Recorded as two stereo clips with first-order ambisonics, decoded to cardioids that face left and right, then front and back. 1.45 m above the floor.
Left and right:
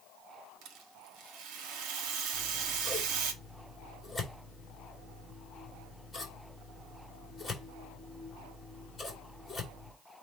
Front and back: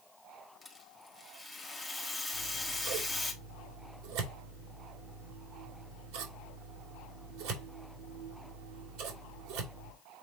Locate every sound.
0.6 s a rattle: 90° right, 1.4 m
2.3 s scissors: 170° left, 3 m